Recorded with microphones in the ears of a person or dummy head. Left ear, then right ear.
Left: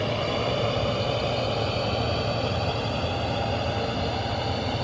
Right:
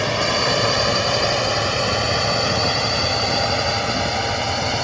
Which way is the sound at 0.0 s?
60° right (ahead or behind).